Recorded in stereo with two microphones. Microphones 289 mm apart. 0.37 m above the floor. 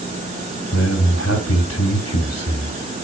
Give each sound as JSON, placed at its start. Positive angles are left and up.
{"t": 0.7, "sound": "a man speaking", "side_deg": 55, "distance_m": 2.5}